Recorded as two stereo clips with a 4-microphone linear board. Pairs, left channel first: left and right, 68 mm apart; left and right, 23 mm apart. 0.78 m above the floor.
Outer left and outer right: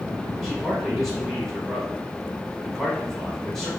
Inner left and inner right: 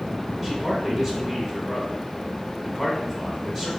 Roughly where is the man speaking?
Centre.